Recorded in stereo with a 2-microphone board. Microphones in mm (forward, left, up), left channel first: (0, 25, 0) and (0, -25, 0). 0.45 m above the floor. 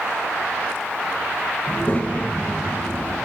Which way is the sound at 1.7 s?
25° left (ahead or behind).